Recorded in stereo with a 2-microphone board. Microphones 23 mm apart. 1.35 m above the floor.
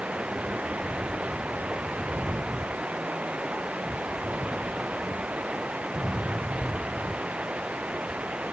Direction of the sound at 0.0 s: 75° right (ahead or behind).